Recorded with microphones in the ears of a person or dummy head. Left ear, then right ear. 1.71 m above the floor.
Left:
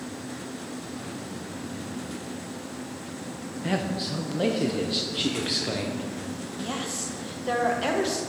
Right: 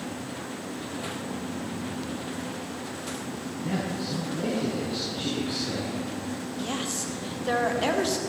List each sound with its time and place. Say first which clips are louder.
3.6 s a man speaking: left 3 dB; 35° left (ahead or behind), 0.6 m
6.6 s a woman speaking: even; 10° right (ahead or behind), 0.8 m